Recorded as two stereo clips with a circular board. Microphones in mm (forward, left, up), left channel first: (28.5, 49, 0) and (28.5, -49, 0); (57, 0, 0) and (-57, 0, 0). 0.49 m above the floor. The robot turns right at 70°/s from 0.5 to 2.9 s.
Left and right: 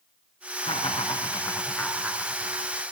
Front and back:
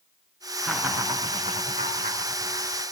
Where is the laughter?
90° left, 5 m; by 2.8 s 120° right, 5 m.